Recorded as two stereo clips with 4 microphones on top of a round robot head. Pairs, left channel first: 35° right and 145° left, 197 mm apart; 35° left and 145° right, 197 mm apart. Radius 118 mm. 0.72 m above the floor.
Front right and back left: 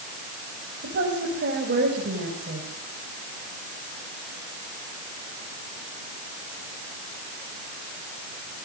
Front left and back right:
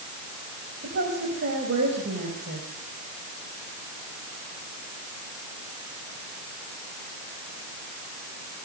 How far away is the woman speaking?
About 5 m.